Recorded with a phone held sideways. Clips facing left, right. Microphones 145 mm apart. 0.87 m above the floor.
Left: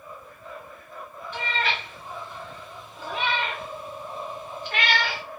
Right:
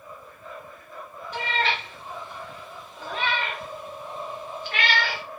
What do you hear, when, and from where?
1.3 s a cat meowing: 40° right (ahead or behind), 1.2 m; by 5.2 s 55° left (ahead or behind), 1.5 m